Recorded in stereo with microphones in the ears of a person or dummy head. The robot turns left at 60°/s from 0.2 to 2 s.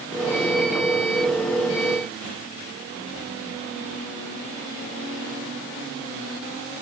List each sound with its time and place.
Only background noise.